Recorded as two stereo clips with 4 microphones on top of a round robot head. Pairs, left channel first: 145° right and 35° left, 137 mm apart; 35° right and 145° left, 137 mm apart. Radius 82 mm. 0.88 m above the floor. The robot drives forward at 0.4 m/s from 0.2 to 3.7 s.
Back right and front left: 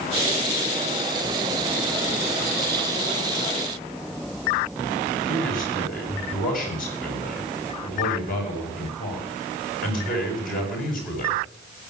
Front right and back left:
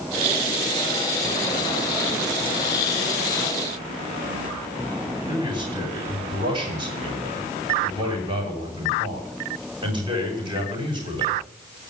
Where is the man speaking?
160° right, 7 m.